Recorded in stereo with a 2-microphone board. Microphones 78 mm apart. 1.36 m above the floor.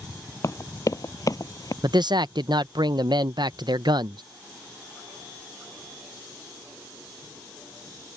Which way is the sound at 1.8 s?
65° right (ahead or behind).